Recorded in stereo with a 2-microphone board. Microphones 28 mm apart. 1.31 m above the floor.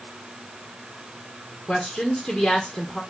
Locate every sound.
1.7 s a woman speaking: 40° left (ahead or behind), 0.9 m